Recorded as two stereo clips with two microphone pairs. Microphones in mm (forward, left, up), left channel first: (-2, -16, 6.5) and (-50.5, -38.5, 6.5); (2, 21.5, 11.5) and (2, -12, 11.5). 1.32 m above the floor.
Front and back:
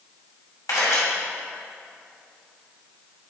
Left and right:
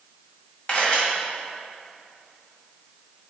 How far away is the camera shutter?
About 1.9 m.